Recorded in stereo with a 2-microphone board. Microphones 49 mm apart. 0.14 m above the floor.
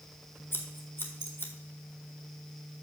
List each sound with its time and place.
0.5 s scissors: 50° left (ahead or behind), 1.4 m